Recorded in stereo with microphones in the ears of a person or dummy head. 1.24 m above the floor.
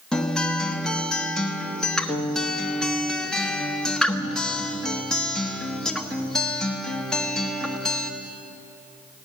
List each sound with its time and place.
0.1 s a guitar: centre (ahead or behind), 1.1 m